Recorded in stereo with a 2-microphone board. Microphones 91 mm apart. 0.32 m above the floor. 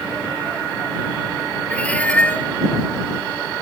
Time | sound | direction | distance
1.7 | a cat meowing | 15° left (ahead or behind) | ?